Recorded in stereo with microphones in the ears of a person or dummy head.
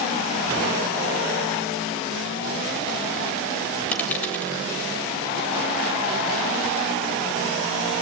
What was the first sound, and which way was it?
A dropped coin, 5° left (ahead or behind).